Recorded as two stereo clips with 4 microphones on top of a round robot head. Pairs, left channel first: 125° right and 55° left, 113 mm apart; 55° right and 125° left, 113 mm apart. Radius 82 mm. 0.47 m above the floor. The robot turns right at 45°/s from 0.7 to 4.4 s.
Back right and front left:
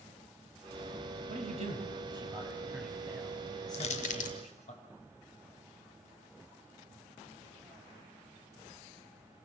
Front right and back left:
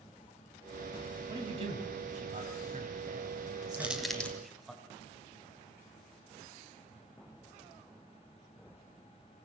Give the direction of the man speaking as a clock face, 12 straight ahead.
10 o'clock.